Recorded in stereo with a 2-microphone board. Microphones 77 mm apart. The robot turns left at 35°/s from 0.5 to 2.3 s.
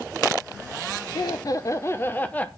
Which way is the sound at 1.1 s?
60° left.